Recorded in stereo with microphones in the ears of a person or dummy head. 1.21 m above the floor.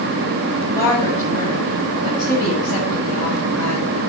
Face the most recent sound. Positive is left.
turn(degrees=20)  # may be behind; listen again after turning